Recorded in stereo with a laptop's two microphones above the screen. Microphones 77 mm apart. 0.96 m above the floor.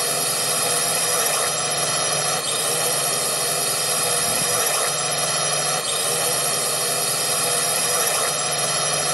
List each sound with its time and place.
0.0 s a drone: 5° right (ahead or behind)